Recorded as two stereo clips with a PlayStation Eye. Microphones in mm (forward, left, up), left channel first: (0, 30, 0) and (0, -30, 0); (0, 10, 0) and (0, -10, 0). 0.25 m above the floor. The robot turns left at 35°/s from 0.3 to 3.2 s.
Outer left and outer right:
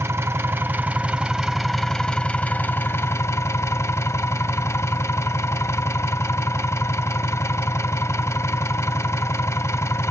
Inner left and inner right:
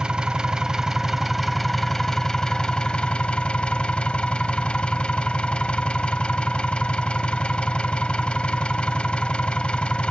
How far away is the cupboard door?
No cupboard door in this recording.